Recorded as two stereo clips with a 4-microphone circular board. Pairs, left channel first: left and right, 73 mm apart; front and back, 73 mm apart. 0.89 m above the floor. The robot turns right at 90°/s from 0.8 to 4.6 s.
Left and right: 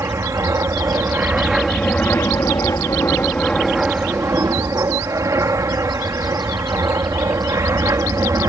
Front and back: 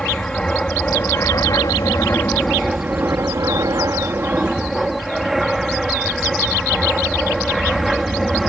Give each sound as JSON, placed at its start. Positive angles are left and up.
{"t": 0.0, "sound": "an aircraft", "azimuth_deg": -75}